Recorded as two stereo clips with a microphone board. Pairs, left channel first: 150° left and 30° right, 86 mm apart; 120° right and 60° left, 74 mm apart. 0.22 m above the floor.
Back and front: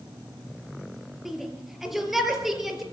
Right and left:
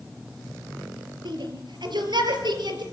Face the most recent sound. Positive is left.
turn(degrees=55)